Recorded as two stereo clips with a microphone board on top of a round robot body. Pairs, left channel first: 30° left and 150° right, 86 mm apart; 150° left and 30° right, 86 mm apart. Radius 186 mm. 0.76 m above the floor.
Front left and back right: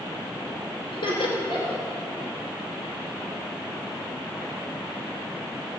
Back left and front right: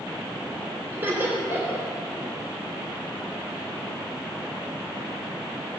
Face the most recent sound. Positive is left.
turn(degrees=40)